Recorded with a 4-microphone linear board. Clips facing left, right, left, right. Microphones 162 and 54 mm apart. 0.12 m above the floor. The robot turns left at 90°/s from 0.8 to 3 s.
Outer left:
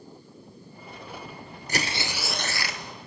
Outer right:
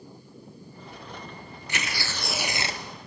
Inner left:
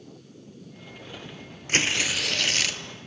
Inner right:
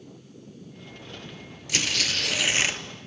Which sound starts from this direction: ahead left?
Tearing paper, at 1.7 s.